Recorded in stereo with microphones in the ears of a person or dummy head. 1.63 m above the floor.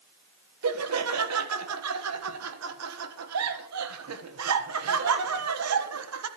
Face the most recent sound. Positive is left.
turn(degrees=-90)